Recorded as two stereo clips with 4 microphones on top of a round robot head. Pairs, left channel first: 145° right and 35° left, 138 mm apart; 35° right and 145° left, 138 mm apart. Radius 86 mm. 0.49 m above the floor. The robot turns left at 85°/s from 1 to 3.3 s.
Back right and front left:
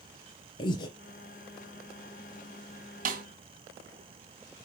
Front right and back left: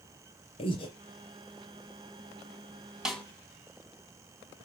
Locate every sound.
0.6 s breathing: 85° right, 3.5 m
3.0 s a snare drum: 60° left, 2.5 m; by 3.2 s 45° left, 2.5 m